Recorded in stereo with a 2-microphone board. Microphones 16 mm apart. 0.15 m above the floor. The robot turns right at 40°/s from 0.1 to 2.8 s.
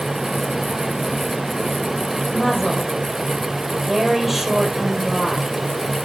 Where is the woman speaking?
Centre (ahead or behind), 3.5 m; by 5.5 s 20° right (ahead or behind), 3.5 m.